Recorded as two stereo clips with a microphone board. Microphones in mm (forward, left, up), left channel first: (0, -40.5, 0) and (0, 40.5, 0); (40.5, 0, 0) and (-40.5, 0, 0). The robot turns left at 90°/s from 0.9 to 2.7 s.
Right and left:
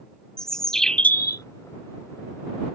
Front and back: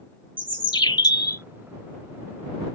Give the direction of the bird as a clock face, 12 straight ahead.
12 o'clock.